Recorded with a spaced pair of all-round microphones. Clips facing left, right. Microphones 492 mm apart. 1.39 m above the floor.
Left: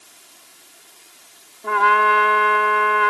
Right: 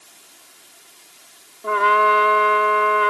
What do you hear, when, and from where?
1.6 s a trumpet: 10° left (ahead or behind)